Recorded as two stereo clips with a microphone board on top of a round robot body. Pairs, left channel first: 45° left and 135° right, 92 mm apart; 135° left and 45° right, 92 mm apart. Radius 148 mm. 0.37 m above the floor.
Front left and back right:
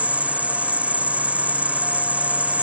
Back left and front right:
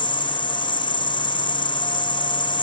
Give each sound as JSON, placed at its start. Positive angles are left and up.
{"t": 0.0, "sound": "an insect", "azimuth_deg": 150}